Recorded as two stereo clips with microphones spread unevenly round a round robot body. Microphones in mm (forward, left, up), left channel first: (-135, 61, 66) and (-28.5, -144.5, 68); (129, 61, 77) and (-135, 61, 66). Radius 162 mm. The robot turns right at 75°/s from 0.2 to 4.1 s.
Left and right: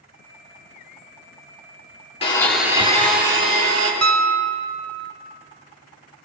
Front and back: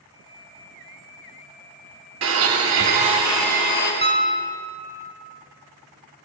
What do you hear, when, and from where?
2.2 s a blender: straight behind, 2.5 m; by 3.9 s 50° right, 2.5 m
4.0 s a piano: 75° right, 0.8 m; by 5.1 s 65° right, 0.8 m